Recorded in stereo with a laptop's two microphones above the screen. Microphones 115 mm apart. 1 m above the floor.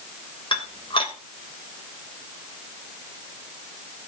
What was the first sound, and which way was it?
Dishes clattering, 50° left (ahead or behind).